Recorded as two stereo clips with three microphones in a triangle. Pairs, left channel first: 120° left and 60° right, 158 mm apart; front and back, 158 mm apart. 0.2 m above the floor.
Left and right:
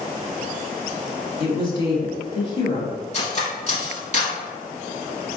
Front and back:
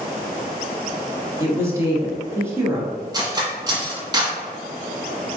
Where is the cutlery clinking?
125° left, 1.1 m.